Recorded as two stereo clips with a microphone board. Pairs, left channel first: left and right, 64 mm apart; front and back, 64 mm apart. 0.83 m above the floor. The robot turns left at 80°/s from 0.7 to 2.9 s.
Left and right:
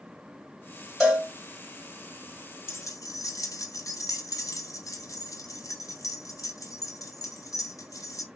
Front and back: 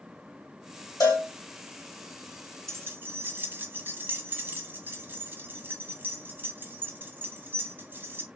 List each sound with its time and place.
1.0 s a cowbell: straight ahead, 2.0 m; by 1.3 s 25° right, 2.0 m
2.7 s keys jangling: 140° left, 0.6 m; by 8.3 s 125° left, 0.6 m